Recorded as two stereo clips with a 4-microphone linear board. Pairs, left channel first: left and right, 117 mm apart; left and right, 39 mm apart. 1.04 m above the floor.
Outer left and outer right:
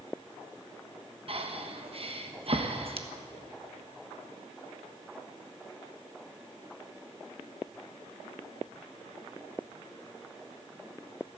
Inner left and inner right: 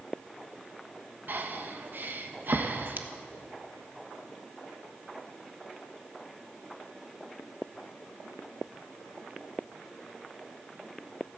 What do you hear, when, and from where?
1.3 s breathing: 55° right (ahead or behind), 1.2 m